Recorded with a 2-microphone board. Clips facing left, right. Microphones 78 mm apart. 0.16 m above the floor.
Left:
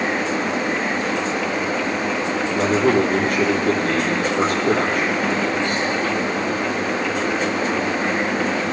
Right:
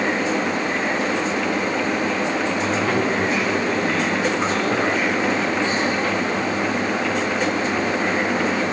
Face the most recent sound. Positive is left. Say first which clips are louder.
# left 4 dB
turn(degrees=55)  # may be behind; listen again after turning